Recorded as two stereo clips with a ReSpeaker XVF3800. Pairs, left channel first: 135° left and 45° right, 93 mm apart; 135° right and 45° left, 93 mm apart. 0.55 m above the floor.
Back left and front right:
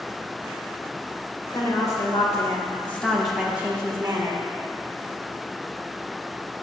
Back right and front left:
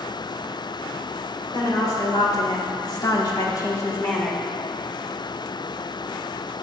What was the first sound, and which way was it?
A woman speaking, straight behind.